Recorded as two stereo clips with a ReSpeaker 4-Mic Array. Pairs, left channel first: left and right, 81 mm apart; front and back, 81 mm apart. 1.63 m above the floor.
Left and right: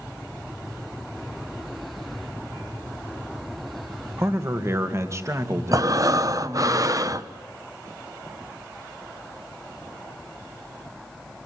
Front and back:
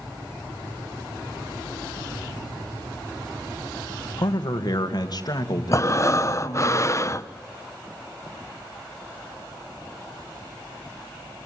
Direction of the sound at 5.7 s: 50° right.